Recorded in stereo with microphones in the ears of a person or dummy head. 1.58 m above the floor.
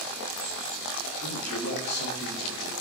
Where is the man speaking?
50° left (ahead or behind), 1.5 m.